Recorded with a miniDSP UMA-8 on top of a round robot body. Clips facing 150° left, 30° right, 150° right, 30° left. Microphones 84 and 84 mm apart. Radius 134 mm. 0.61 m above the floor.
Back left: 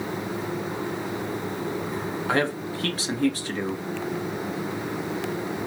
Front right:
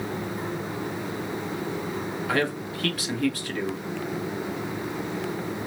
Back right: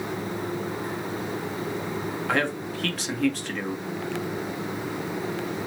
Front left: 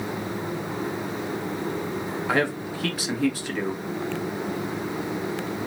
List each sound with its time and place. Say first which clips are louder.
2.3 s a man speaking: back left 2 dB, front left 2 dB; 110° left, 1.4 m